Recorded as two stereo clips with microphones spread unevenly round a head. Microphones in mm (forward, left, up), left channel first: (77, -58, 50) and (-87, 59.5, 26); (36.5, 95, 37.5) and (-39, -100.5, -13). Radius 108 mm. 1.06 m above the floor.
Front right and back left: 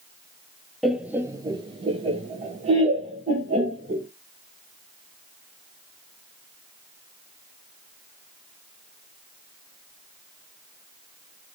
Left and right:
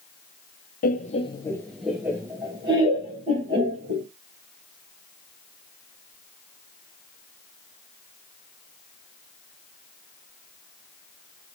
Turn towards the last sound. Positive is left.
turn(degrees=-165)